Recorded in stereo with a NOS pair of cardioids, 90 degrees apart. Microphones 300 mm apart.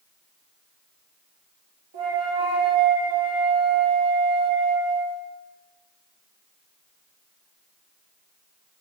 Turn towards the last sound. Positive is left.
turn(degrees=-55)